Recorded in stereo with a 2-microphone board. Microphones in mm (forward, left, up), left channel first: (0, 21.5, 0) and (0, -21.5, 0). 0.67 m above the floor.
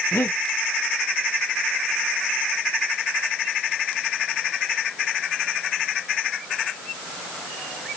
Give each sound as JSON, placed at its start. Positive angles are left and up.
{"t": 0.1, "sound": "breathing", "side_deg": 75, "distance_m": 0.6}